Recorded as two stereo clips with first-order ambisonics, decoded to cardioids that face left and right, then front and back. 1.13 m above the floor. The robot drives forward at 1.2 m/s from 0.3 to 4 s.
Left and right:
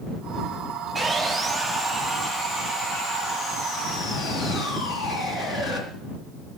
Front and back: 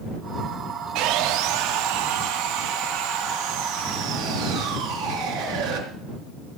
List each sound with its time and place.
0.9 s sawing: 160° right, 1.3 m; by 5.8 s 175° right, 4.5 m